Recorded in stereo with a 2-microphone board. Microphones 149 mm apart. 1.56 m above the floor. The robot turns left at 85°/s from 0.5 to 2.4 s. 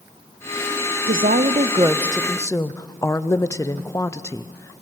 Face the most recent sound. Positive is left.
turn(degrees=160)